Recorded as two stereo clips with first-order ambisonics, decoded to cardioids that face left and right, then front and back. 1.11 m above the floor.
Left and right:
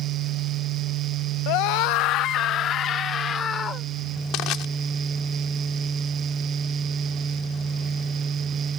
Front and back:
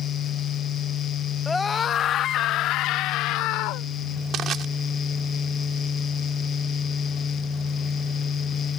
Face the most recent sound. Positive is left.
turn(degrees=125)